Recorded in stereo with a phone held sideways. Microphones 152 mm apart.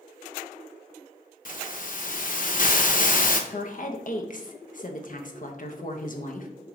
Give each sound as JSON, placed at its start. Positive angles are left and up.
{"t": 1.4, "sound": "a hiss", "side_deg": 60, "distance_m": 0.6}
{"t": 3.5, "sound": "a woman speaking", "side_deg": 60, "distance_m": 0.7}